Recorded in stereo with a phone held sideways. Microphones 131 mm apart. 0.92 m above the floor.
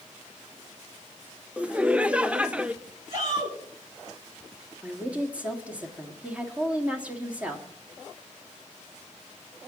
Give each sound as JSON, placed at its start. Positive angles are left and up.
{"t": 1.6, "sound": "laughter", "side_deg": -10, "distance_m": 0.5}
{"t": 3.1, "sound": "a shout", "side_deg": -30, "distance_m": 7.5}
{"t": 4.8, "sound": "a woman speaking", "side_deg": -10, "distance_m": 1.9}